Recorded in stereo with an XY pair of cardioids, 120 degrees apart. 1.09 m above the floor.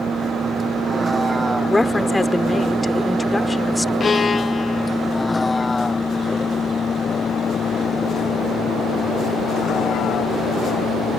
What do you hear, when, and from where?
0.0 s a vehicle: 25° right; by 11.2 s 65° left
1.7 s a woman speaking: 20° left
4.0 s a violin: 35° left